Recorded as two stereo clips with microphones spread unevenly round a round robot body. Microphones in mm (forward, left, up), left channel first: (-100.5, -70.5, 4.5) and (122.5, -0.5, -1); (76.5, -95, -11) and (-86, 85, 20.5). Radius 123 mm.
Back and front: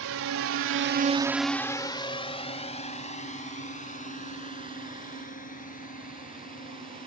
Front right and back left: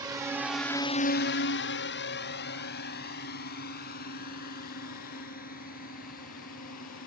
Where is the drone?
55° left; by 7.1 s 105° right.